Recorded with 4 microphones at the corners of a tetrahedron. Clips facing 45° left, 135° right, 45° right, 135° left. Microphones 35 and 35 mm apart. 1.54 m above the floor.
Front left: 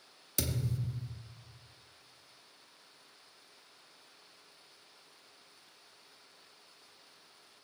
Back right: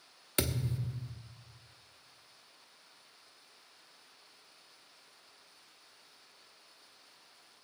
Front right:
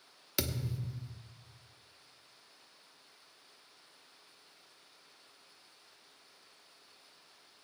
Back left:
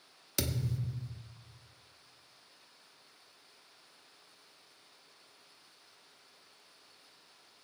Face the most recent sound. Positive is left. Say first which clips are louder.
# back right 2 dB, back left 1 dB
turn(degrees=-125)